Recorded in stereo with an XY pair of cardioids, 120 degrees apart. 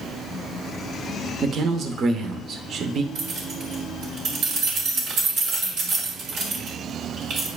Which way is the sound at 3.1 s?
70° right.